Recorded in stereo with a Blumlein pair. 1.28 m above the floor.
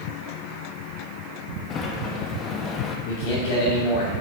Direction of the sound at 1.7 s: 25° left.